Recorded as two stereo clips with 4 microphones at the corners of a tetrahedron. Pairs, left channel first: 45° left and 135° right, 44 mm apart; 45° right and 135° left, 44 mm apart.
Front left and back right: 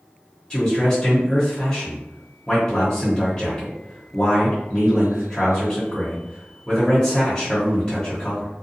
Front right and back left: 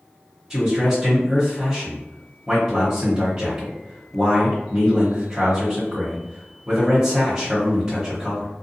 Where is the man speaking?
80° left, 1.0 m.